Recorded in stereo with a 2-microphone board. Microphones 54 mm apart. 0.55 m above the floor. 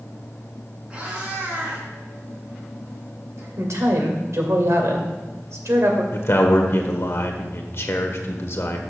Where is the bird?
I don't hear a bird.